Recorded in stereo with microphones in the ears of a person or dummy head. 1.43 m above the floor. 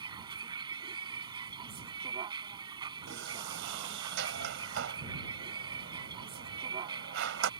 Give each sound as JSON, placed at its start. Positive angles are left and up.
{"t": 0.0, "sound": "a vehicle", "side_deg": -25}
{"t": 3.1, "sound": "a sliding door", "side_deg": -70}